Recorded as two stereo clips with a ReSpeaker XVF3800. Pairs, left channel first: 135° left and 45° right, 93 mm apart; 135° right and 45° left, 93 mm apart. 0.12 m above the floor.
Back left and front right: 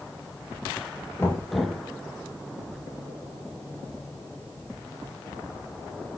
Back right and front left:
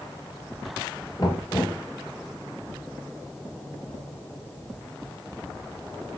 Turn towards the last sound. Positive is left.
turn(degrees=-170)